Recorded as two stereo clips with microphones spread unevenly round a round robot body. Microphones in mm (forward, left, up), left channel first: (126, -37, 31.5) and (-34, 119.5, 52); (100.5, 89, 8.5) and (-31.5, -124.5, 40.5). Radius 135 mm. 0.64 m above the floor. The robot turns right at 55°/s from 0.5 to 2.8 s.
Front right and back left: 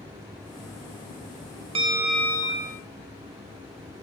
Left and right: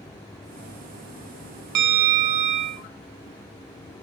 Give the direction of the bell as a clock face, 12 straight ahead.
5 o'clock.